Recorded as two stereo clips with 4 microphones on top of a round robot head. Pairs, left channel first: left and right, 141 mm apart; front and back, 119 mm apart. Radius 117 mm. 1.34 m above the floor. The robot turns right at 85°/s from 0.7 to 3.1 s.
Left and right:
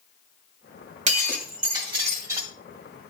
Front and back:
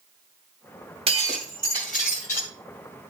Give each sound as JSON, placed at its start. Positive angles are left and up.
{"t": 1.1, "sound": "breaking glass", "azimuth_deg": -120, "distance_m": 1.9}